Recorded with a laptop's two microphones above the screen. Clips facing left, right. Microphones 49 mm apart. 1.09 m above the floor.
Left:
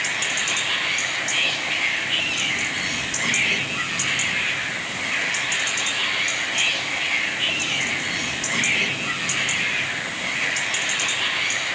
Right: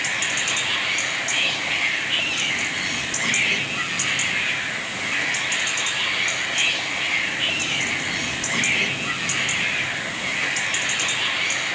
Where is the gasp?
I don't hear a gasp.